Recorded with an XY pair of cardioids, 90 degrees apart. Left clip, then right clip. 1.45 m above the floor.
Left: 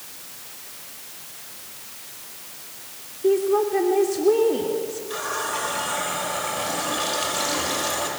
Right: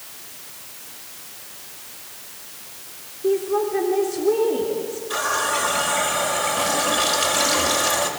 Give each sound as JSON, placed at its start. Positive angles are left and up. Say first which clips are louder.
{"t": 3.2, "sound": "a woman speaking", "louder": "left 1 dB", "azimuth_deg": 20, "distance_m": 3.5}
{"t": 5.1, "sound": "a running tap", "louder": "right 6 dB", "azimuth_deg": -40, "distance_m": 5.0}